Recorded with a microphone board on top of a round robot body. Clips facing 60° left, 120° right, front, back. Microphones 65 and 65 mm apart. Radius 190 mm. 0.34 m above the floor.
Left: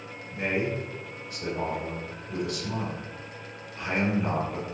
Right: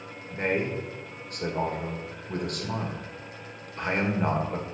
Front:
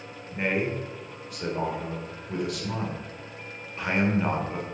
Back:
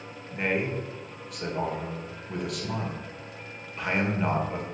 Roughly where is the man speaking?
Right.